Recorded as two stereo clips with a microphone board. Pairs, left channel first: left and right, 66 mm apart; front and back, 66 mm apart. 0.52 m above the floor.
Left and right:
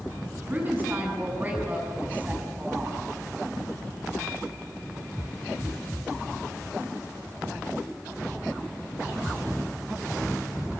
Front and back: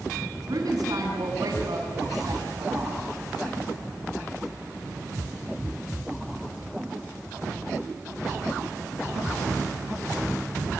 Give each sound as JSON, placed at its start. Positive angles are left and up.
{"t": 0.5, "sound": "a woman speaking", "azimuth_deg": -150, "distance_m": 6.5}